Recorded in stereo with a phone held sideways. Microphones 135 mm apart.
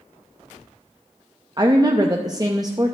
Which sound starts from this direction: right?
A woman speaking, at 1.6 s.